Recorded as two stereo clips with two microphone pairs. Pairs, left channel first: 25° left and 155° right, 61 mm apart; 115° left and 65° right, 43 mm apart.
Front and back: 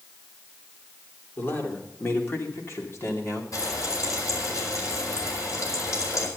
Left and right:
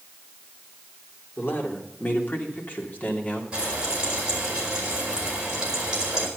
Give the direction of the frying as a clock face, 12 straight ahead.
12 o'clock.